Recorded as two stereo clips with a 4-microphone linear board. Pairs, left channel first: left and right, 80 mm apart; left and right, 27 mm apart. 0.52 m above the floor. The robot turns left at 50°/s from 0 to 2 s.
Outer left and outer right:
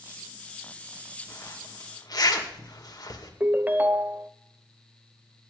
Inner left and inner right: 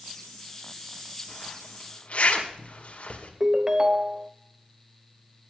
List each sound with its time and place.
1.3 s a zipper: 30° left (ahead or behind), 2 m; by 3.3 s 55° left (ahead or behind), 2 m
3.4 s a ringtone: 20° right (ahead or behind), 0.6 m